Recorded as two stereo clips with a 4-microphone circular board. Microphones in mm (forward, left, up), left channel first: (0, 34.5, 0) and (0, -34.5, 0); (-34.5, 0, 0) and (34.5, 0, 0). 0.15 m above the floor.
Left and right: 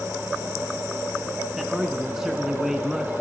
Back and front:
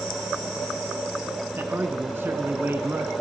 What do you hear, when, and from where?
1.6 s a man speaking: 10° right, 1.3 m